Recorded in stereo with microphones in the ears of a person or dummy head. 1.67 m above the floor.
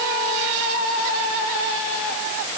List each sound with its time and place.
Only background noise.